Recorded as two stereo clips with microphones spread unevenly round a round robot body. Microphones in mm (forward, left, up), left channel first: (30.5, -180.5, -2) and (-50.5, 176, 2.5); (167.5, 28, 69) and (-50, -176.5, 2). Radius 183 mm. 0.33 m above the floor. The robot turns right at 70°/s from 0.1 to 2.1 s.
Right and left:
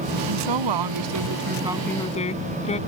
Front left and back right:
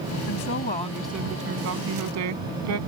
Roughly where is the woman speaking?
Left.